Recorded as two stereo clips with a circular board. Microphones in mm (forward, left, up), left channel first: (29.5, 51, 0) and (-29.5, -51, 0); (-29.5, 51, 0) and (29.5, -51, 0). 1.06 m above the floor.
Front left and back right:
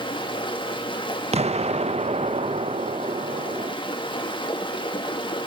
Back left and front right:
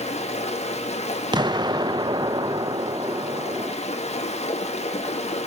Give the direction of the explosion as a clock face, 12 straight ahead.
4 o'clock.